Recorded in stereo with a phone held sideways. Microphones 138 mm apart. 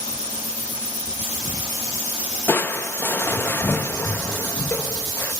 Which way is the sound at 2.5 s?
15° left (ahead or behind).